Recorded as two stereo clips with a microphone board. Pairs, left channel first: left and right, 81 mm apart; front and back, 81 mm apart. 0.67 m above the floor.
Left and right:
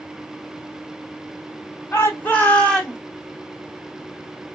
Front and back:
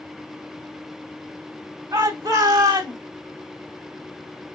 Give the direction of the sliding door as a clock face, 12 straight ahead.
No sliding door in this recording.